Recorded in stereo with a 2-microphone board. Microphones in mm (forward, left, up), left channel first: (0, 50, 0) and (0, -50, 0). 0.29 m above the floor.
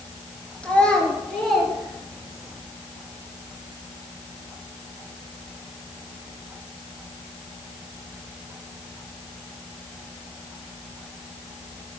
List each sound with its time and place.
0.6 s a child speaking: 10° left (ahead or behind), 2.5 m; by 2.5 s 5° right (ahead or behind), 3.5 m